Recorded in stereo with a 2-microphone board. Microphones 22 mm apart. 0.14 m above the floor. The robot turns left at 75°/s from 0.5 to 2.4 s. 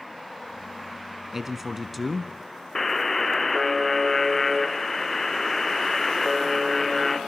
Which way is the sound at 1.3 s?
15° right (ahead or behind).